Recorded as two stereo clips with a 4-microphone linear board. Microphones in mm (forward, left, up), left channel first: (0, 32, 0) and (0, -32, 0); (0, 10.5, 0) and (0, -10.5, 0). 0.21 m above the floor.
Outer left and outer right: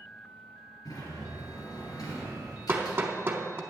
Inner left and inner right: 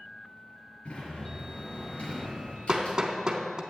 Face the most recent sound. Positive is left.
turn(degrees=-35)  # may be behind; listen again after turning